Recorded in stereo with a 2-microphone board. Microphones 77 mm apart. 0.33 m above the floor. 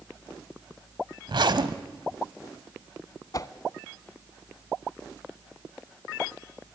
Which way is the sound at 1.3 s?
65° right (ahead or behind).